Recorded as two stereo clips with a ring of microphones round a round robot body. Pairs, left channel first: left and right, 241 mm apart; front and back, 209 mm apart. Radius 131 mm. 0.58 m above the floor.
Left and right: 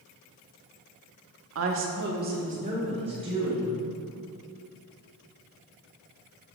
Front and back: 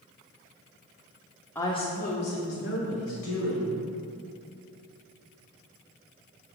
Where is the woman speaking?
80° right, 1.0 m; by 3.8 s 15° right, 3 m.